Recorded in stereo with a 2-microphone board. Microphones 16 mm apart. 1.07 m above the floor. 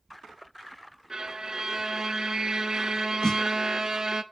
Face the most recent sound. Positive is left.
turn(degrees=55)  # may be behind; listen again after turning